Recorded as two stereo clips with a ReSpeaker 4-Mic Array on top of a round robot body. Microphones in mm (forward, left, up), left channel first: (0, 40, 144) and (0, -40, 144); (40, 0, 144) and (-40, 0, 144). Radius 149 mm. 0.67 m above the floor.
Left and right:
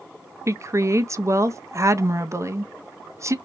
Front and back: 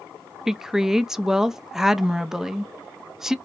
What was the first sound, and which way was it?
A woman speaking, 100° right.